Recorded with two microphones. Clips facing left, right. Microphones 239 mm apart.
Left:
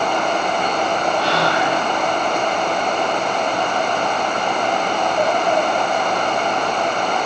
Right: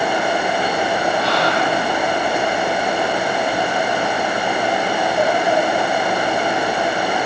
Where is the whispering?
70° left (ahead or behind), 4 m.